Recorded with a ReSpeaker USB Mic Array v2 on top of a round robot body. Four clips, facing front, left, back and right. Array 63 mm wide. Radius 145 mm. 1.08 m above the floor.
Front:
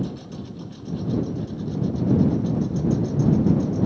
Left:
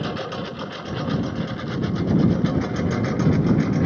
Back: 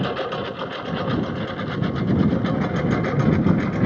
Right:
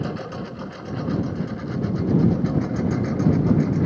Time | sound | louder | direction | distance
0.0 | a lawn mower | left 2 dB, back 7 dB | 165° left | ?